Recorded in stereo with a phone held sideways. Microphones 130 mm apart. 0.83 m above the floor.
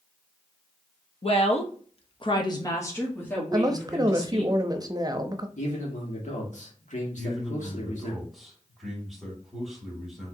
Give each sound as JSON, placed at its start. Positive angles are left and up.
{"t": 1.2, "sound": "a woman speaking", "side_deg": 50, "distance_m": 1.0}
{"t": 3.5, "sound": "a woman speaking", "side_deg": -30, "distance_m": 0.7}
{"t": 5.6, "sound": "a man speaking", "side_deg": 70, "distance_m": 1.7}
{"t": 7.2, "sound": "a man speaking", "side_deg": 0, "distance_m": 2.5}